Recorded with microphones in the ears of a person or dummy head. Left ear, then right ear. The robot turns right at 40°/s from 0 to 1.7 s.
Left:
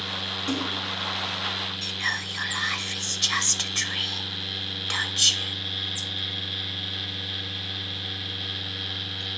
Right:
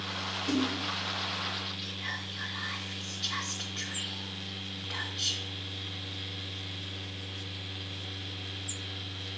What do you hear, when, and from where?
0.5 s a splash: 70° left (ahead or behind), 2.5 m; by 0.8 s 60° left (ahead or behind), 2.5 m
1.8 s whispering: 70° left (ahead or behind), 0.6 m